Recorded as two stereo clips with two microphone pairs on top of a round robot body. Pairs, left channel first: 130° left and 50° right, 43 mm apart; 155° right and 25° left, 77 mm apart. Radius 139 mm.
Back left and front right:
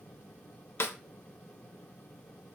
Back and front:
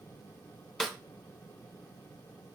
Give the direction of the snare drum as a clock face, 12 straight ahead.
8 o'clock.